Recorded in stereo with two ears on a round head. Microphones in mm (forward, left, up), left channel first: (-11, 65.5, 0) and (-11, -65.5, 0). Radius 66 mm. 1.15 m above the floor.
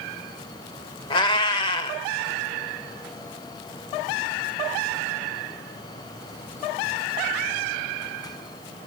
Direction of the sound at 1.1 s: 35° left (ahead or behind).